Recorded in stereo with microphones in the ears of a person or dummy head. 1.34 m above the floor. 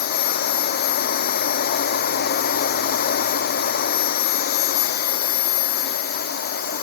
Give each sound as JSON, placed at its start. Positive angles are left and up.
{"t": 0.0, "sound": "a machine running", "side_deg": 50}